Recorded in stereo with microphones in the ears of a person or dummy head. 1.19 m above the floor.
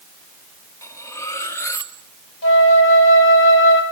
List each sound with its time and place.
0.8 s cutlery clinking: 15° left (ahead or behind), 1.2 m
2.4 s a flute: 70° left (ahead or behind), 5 m